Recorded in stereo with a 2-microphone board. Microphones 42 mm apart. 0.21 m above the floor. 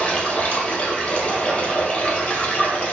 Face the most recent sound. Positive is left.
turn(degrees=35)  # may be behind; listen again after turning